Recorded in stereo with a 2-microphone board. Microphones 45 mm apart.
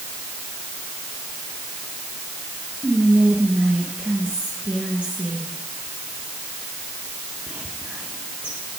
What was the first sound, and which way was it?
Whispering, 25° right (ahead or behind).